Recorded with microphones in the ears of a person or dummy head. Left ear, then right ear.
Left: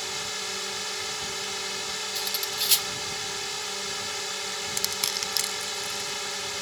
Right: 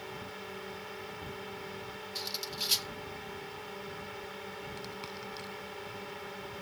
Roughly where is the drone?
Left.